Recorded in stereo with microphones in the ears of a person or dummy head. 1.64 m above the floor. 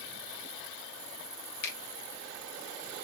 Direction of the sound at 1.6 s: 65° left (ahead or behind).